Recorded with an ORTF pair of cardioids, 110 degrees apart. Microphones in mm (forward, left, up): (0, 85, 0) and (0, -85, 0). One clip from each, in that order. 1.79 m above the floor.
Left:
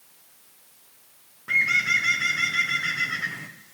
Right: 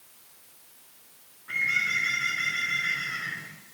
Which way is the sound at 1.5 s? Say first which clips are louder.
Left 5 dB; 50° left.